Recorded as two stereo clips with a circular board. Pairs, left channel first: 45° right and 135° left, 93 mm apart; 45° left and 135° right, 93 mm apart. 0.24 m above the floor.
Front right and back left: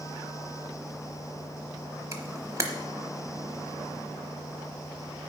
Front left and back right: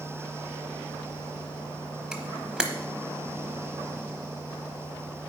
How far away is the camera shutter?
About 0.9 m.